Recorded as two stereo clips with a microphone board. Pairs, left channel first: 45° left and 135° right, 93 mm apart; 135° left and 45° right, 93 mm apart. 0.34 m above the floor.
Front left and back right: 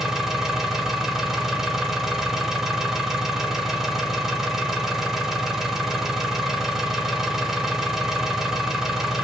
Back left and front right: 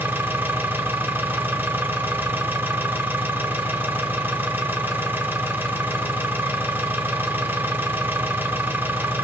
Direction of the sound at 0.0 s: 55° right.